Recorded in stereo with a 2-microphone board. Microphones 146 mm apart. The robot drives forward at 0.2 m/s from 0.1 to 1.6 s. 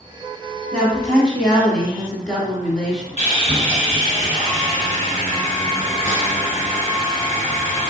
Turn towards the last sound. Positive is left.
turn(degrees=50)  # may be behind; listen again after turning